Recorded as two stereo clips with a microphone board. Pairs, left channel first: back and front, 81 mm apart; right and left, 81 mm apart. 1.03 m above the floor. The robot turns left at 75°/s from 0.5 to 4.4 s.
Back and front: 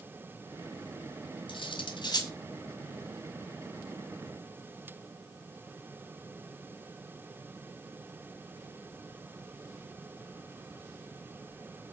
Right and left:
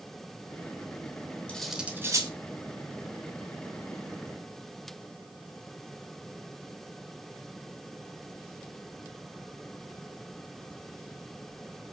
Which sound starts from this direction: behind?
Cutlery clinking, at 1.5 s.